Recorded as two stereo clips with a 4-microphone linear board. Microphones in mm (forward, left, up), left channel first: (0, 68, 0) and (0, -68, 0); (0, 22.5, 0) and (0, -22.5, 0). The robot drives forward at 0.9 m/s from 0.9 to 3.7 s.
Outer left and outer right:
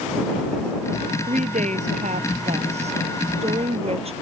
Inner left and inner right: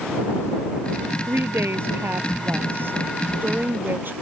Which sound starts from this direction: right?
A woman speaking, at 1.3 s.